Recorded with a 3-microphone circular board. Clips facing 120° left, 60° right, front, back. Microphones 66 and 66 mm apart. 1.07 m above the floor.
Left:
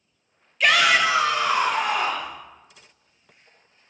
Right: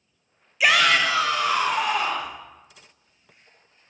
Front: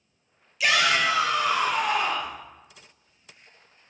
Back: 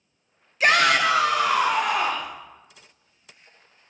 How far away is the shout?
About 0.6 m.